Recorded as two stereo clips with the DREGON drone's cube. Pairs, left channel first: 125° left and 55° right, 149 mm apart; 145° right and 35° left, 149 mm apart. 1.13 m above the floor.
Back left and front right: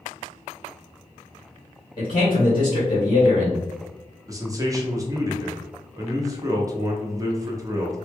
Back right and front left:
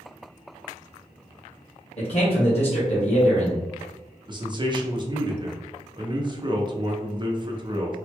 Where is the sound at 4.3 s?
Straight ahead, 0.7 m.